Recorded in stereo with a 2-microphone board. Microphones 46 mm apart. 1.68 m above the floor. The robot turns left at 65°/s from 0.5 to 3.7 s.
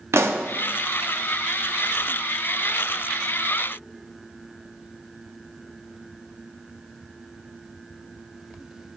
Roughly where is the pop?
Right.